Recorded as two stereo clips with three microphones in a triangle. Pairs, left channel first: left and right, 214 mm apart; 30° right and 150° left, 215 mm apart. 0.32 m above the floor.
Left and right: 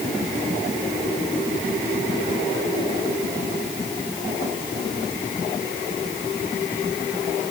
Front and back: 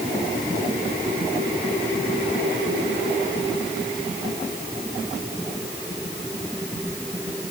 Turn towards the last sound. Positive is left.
No sound to turn to.